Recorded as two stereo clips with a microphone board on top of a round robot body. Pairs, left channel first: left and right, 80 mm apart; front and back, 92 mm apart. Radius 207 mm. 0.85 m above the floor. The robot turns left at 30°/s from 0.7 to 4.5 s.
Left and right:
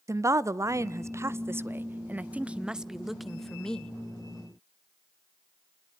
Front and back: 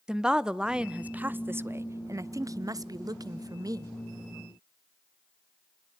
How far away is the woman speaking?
About 0.8 m.